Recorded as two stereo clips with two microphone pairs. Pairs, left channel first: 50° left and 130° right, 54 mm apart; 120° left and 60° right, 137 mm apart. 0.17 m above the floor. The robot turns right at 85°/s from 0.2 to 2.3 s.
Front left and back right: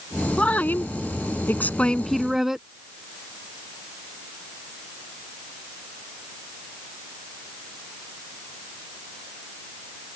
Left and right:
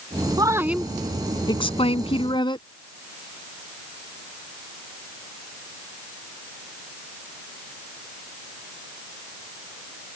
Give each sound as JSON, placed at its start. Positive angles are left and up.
{"t": 0.4, "sound": "a woman speaking", "azimuth_deg": -15}